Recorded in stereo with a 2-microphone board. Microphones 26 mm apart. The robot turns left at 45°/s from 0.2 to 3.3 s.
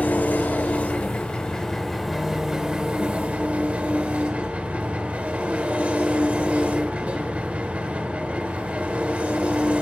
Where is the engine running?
80° left, 0.9 m; by 9.8 s 60° right, 0.9 m.